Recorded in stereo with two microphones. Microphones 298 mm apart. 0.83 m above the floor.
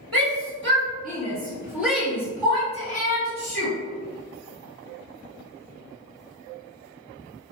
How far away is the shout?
About 1.2 m.